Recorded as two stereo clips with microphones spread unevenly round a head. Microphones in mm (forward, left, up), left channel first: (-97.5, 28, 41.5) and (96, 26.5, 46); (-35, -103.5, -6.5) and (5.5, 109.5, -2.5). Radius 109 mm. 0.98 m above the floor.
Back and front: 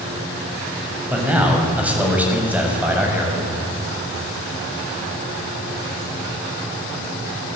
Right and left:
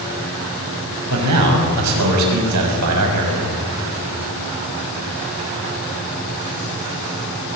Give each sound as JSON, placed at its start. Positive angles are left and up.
{"t": 1.1, "sound": "a man speaking", "azimuth_deg": 80, "distance_m": 6.5}